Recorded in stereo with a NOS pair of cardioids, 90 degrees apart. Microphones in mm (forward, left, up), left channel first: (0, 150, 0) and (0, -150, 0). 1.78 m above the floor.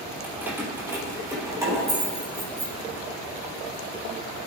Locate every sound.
0.2 s keys jangling: 5° right, 3.5 m; by 2.7 s 10° right, 6 m